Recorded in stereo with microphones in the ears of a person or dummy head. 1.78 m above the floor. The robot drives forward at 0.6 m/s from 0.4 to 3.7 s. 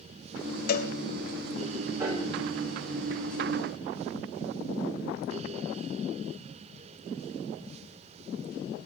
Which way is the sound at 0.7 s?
55° left (ahead or behind).